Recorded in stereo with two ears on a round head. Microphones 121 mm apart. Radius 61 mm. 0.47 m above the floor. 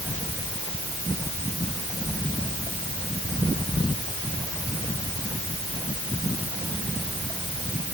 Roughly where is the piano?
No piano in this recording.